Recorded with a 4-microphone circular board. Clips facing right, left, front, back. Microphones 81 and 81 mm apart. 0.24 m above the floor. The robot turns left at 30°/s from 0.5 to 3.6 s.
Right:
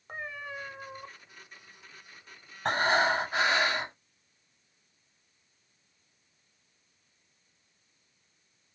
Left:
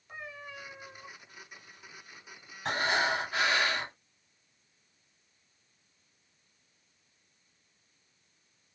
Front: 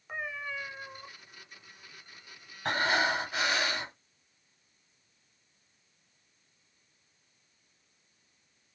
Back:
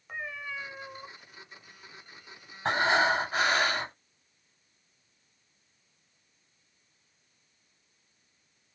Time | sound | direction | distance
0.1 | a cat meowing | 85° right | 0.6 m
2.6 | breathing | 125° right | 0.7 m